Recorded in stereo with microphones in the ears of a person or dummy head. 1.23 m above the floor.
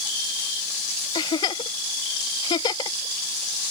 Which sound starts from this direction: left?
A giggle, at 1.1 s.